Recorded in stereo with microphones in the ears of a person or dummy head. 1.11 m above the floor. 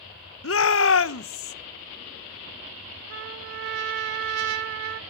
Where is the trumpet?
65° right (ahead or behind), 3 m.